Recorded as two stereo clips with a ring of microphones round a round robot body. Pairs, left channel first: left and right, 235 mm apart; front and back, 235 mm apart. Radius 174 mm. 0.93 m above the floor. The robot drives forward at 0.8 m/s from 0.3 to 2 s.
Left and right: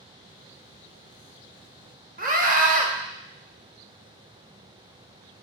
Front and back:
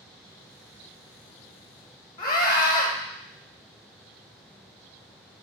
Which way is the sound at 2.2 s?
65° right.